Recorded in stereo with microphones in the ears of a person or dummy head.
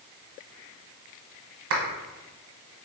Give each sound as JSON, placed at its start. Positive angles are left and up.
{"t": 1.7, "sound": "a clap", "side_deg": -65, "distance_m": 1.2}